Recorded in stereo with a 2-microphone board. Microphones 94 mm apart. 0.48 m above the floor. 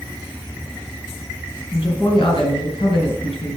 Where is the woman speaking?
75° left (ahead or behind), 3.5 m.